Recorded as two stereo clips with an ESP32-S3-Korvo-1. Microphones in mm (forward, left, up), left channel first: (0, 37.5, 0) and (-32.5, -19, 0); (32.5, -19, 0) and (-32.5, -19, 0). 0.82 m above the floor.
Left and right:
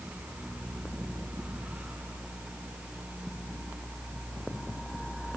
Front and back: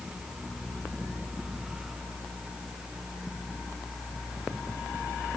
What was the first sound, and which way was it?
Only background noise.